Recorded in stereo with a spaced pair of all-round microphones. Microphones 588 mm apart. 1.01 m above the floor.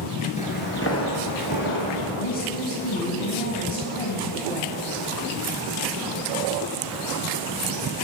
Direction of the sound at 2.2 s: 65° left (ahead or behind).